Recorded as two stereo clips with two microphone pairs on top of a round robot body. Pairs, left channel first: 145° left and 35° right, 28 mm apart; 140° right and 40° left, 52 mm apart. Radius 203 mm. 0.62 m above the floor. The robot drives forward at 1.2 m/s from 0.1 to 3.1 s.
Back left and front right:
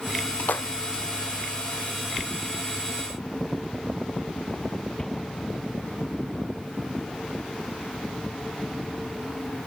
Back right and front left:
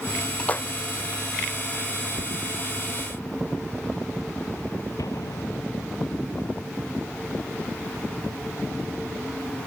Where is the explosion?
140° right.